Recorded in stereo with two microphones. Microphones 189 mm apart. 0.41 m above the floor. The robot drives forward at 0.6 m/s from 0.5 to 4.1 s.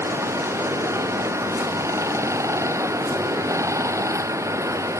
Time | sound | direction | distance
0.0 | running water | 15° right (ahead or behind) | ?